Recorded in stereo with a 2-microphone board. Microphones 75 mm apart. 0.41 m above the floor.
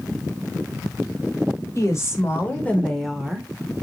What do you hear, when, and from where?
1.8 s a woman speaking: 40° left (ahead or behind), 1.4 m; by 3.8 s 30° right (ahead or behind), 0.9 m